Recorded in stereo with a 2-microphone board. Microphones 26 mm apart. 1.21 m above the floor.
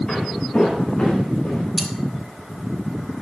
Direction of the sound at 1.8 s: 10° right (ahead or behind).